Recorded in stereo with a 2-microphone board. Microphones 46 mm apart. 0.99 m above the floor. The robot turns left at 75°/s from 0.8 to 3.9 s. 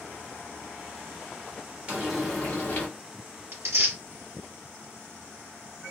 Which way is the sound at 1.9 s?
155° right.